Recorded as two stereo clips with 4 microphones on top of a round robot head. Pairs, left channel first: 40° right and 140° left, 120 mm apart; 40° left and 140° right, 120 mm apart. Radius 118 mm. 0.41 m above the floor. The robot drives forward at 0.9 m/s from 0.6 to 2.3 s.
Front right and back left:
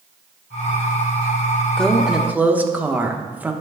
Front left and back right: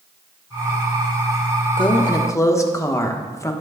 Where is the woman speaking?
40° left, 1.2 m; by 3.5 s 75° left, 1.0 m.